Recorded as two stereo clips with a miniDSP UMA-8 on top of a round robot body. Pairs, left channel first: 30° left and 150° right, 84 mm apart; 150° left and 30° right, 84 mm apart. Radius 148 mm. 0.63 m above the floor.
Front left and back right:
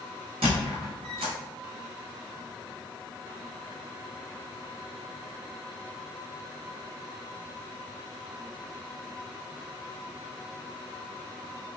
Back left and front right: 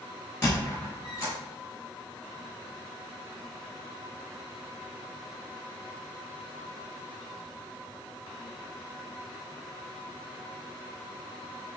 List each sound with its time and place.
0.4 s a squeak: 145° right, 0.8 m